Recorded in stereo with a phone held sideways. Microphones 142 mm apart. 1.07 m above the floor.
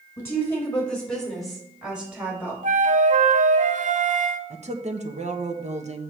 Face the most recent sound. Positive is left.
turn(degrees=-50)  # may be behind; listen again after turning